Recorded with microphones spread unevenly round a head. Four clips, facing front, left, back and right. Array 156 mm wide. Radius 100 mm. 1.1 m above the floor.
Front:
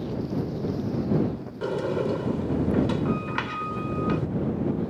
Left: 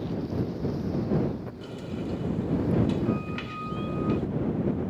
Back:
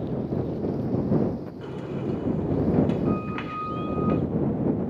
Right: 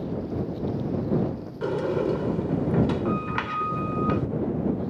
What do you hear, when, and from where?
1.6 s a sliding door: 50° right